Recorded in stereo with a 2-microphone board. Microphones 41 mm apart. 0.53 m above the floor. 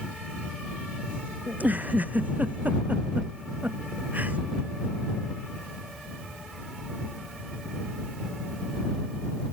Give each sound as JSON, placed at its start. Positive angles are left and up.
{"t": 1.5, "sound": "a giggle", "side_deg": -45}